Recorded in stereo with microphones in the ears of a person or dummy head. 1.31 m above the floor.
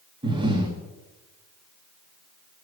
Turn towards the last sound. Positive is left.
turn(degrees=-30)  # may be behind; listen again after turning